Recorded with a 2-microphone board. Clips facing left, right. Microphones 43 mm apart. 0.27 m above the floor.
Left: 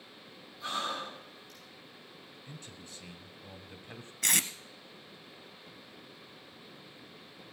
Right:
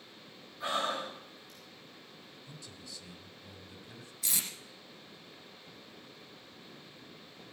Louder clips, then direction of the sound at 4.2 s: Left 8 dB; 85° left.